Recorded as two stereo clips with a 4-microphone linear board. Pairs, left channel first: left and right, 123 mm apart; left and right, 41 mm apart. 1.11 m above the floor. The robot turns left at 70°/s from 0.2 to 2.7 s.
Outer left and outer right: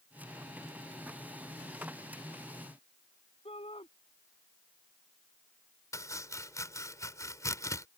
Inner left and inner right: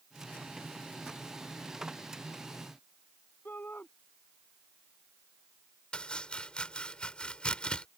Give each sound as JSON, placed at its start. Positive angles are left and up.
{"t": 3.5, "sound": "a shout", "side_deg": 50}
{"t": 5.9, "sound": "chopping", "side_deg": 25}